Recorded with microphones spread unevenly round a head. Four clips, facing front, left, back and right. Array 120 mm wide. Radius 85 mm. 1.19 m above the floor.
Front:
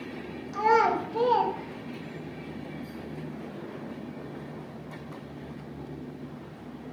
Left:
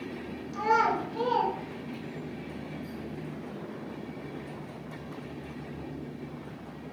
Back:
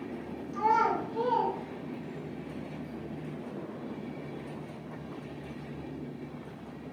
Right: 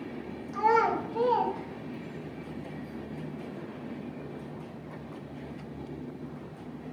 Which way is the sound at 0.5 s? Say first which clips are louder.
Right 1 dB, front 4 dB; 25° right.